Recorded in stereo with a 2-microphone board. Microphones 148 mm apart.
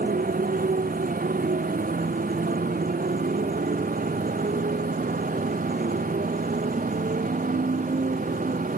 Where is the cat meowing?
I don't hear a cat meowing.